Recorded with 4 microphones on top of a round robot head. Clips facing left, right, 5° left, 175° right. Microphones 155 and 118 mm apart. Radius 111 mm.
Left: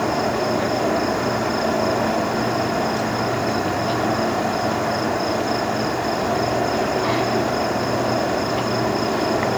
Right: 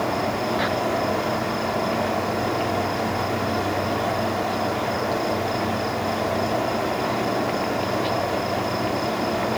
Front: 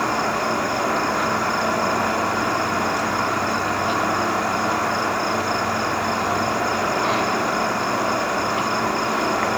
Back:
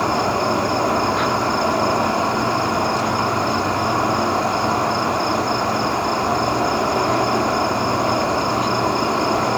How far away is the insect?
About 1.6 m.